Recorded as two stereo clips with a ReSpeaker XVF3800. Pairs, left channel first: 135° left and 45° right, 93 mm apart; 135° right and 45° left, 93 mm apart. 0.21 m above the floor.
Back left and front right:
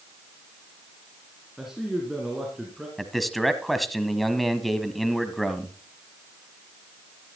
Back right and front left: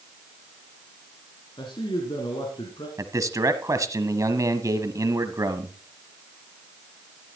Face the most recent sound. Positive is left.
turn(degrees=45)